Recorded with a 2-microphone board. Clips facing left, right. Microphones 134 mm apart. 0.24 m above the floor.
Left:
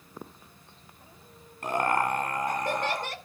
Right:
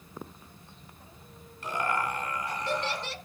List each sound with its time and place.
1.6 s laughter: 55° left (ahead or behind), 2 m